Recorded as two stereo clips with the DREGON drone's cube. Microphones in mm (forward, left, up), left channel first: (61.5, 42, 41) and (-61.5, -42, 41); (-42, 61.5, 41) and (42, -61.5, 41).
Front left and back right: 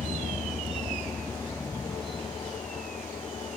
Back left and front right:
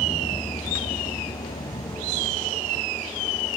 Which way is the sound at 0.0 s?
160° right.